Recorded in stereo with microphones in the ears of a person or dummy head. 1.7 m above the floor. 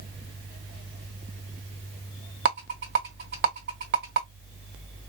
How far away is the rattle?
About 1.6 m.